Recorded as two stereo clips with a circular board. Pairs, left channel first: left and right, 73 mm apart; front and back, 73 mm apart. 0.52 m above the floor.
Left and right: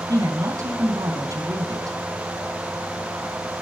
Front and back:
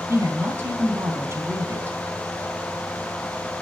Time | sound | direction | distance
0.1 | a woman speaking | 125° right | 4.5 m